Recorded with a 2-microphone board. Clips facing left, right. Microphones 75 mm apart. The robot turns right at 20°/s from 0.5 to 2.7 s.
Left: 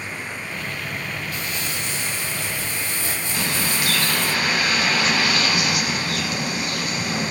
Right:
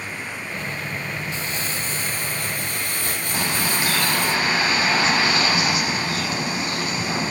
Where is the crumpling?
30° right (ahead or behind), 5 m; by 4.3 s 60° right (ahead or behind), 5 m.